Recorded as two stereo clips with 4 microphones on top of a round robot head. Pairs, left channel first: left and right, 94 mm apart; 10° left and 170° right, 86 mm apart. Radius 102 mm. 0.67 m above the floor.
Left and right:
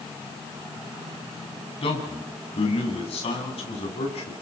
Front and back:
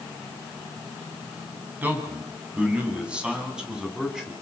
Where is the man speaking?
120° left, 7.5 m; by 4.3 s 105° left, 8 m.